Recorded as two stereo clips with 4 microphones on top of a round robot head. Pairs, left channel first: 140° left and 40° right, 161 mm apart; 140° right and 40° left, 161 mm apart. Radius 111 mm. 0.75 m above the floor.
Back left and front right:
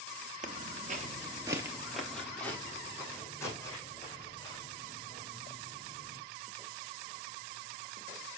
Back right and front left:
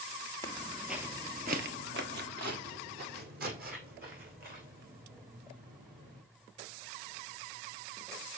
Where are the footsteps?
75° right, 1.0 m; by 6.2 s 75° left, 4.5 m.